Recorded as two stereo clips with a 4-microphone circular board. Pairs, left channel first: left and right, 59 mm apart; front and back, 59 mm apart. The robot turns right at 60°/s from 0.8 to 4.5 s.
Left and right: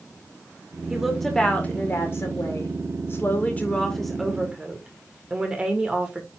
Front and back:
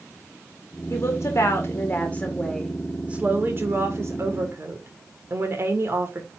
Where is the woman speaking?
15° right, 1.9 m; by 6.3 s 160° right, 1.9 m.